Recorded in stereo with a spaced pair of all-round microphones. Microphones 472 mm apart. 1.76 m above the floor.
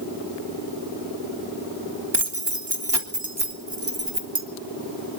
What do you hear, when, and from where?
2.1 s keys jangling: 60° right (ahead or behind), 2 m